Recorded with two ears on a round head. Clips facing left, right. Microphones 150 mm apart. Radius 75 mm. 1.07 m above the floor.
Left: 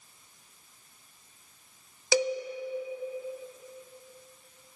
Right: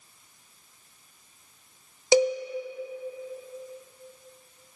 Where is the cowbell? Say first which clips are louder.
Right 6 dB; 20° right (ahead or behind), 0.8 m.